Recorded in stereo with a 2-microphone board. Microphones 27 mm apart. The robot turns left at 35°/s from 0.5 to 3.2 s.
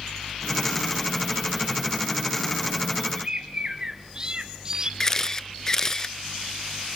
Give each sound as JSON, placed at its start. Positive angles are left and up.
{"t": 3.1, "sound": "a bird", "side_deg": -25, "distance_m": 0.8}
{"t": 5.0, "sound": "a camera shutter", "side_deg": 25, "distance_m": 0.6}